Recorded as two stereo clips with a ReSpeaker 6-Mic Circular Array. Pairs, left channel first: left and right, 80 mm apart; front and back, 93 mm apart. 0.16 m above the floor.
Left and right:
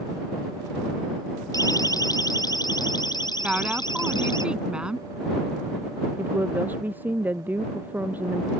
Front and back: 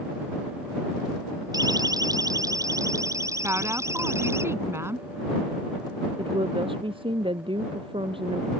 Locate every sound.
1.5 s a siren: 135° left; by 4.4 s 120° left
3.4 s a woman speaking: 155° right
6.2 s a woman speaking: 155° right